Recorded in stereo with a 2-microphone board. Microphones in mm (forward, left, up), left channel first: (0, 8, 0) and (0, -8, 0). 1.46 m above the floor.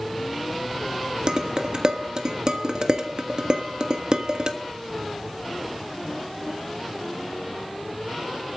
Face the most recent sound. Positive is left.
turn(degrees=-50)  # may be behind; listen again after turning